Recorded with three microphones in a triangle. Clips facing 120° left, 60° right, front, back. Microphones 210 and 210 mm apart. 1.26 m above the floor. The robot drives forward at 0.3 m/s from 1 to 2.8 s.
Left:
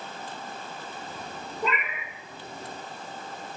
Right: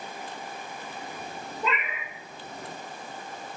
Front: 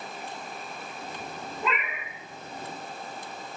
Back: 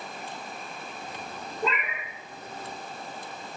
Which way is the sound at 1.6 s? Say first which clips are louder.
Left 1 dB, back 2 dB; 135° left.